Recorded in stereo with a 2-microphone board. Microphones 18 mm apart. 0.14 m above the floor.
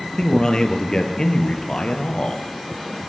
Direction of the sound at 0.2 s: 40° left (ahead or behind).